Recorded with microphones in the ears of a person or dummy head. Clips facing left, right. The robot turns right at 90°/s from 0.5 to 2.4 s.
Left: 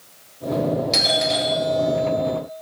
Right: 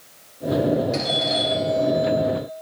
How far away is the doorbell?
About 7.5 m.